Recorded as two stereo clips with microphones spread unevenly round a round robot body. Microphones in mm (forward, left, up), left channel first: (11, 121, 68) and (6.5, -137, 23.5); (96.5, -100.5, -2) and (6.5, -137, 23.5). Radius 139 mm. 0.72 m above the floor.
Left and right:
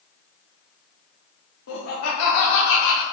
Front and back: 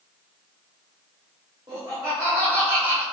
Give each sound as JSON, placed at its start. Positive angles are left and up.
{"t": 1.7, "sound": "laughter", "azimuth_deg": 130, "distance_m": 3.0}